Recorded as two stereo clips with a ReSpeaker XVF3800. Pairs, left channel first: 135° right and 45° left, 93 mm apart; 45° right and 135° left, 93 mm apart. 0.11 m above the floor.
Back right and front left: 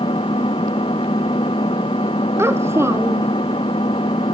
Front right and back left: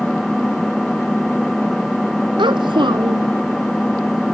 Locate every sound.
0.0 s an engine running: 135° right
2.4 s a child speaking: 105° left